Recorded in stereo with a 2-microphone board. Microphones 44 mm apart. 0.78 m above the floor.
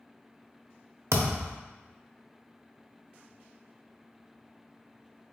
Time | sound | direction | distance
1.1 | a thud | 80° right | 0.6 m